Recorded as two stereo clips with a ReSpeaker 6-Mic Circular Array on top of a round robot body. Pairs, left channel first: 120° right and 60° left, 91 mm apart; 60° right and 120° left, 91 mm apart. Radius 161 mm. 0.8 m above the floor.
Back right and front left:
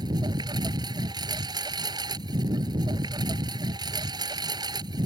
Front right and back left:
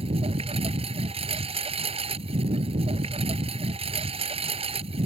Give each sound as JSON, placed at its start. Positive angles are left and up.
{"t": 0.0, "sound": "a lawn mower", "azimuth_deg": 105}